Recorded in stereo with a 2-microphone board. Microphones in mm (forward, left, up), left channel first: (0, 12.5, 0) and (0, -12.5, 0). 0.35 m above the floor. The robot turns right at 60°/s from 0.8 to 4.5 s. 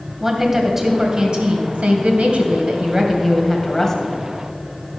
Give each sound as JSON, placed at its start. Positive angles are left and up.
{"t": 0.2, "sound": "a woman speaking", "azimuth_deg": -165, "distance_m": 1.9}